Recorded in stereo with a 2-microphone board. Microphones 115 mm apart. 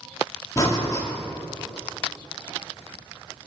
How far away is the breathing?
About 3 m.